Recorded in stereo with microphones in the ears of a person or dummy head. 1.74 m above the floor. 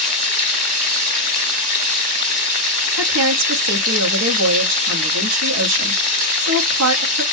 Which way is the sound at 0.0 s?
45° right (ahead or behind).